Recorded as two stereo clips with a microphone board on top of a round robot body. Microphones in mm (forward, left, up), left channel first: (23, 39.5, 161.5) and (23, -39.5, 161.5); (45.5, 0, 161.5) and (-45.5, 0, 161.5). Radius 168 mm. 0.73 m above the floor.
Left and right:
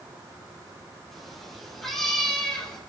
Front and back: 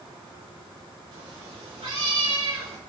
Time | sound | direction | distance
1.1 | a cat meowing | straight behind | 5.5 m